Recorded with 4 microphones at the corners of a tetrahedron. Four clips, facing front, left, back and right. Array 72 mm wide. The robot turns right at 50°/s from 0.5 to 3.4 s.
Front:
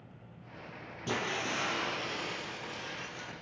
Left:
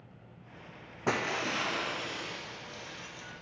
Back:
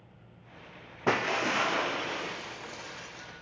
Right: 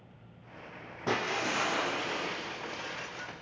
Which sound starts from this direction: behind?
Breaking glass, at 1.1 s.